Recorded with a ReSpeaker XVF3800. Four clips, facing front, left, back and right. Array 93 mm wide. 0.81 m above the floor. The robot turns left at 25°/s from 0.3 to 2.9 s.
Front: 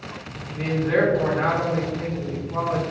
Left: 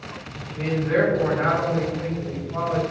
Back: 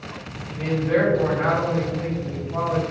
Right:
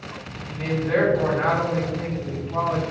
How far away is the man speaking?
About 1.2 m.